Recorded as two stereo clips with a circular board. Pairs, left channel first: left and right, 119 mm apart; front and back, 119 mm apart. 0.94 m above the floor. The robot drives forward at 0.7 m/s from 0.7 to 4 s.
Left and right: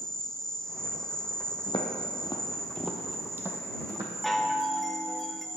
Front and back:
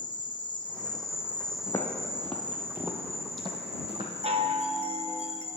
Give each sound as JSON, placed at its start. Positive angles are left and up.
{"t": 0.0, "sound": "an insect", "azimuth_deg": 5, "distance_m": 0.9}
{"t": 1.7, "sound": "footsteps", "azimuth_deg": 60, "distance_m": 1.7}
{"t": 4.2, "sound": "a chime", "azimuth_deg": 180, "distance_m": 0.7}